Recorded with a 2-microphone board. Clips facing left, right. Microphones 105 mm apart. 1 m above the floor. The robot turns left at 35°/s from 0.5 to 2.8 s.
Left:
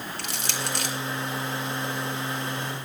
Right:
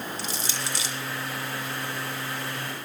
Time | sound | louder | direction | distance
0.2 | crushing | left 1 dB | 75° left (ahead or behind) | 4 m